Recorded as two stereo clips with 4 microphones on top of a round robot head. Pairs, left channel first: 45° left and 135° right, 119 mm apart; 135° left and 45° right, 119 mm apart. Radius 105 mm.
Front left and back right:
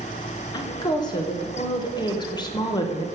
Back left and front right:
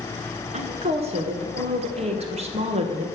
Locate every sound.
0.5 s a woman speaking: 10° right, 1.5 m